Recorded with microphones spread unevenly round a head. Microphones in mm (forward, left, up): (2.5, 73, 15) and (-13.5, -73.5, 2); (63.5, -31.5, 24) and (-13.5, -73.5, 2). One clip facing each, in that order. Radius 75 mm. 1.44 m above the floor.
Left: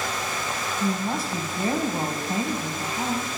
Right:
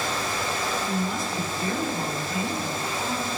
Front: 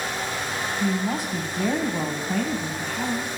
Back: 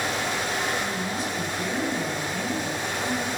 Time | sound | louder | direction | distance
0.8 | a woman speaking | left 2 dB, front 4 dB | 25° left | 3.5 m